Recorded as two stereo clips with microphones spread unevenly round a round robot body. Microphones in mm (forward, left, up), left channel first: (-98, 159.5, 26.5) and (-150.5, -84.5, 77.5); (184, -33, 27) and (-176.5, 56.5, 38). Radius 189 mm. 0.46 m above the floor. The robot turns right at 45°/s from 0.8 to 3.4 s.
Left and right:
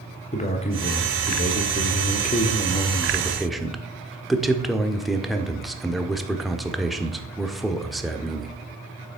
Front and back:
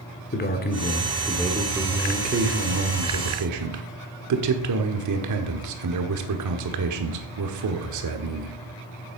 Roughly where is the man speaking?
Ahead left.